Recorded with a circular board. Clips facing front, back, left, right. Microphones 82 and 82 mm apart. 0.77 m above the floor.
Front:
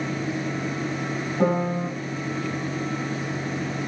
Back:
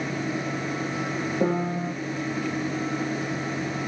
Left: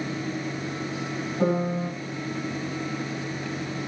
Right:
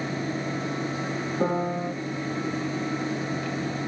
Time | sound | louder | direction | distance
1.4 | a piano | front 4 dB, left 2 dB | 10° right | 2.5 m